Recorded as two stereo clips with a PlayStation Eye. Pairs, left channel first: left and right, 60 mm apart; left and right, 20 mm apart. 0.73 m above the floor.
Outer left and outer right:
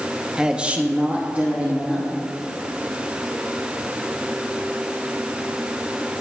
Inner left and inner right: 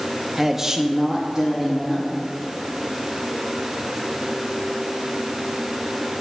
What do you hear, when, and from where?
0.4 s a man speaking: 10° right (ahead or behind), 0.7 m; by 2.1 s 20° right (ahead or behind), 1.5 m